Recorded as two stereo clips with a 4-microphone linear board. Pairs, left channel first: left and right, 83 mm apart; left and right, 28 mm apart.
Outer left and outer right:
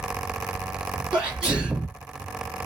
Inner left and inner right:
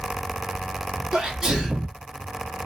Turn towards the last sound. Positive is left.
turn(degrees=-10)  # may be behind; listen again after turning